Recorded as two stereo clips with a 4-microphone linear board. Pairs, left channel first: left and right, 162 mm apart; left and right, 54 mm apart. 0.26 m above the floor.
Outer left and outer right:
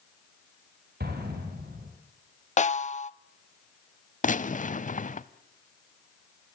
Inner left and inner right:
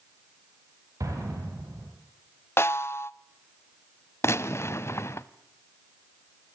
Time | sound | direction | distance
1.0 | an explosion | 70° right (ahead or behind) | 5.5 m
2.6 | a snare drum | 45° left (ahead or behind) | 0.5 m
4.2 | a gunshot | 50° left (ahead or behind) | 0.8 m